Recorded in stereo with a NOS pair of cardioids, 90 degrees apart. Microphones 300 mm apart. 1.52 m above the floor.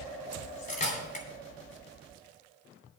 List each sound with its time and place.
0.3 s cutlery clinking: 25° left, 2.5 m